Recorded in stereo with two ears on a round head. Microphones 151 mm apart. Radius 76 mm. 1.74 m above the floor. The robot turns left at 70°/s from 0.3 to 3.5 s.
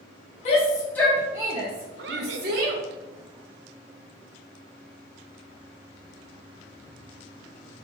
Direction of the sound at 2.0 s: 60° right.